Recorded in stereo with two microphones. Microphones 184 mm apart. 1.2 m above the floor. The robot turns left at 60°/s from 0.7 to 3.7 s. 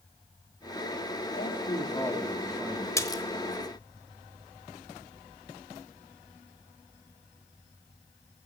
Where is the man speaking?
60° left, 2.5 m; by 2.9 s 30° right, 2.5 m.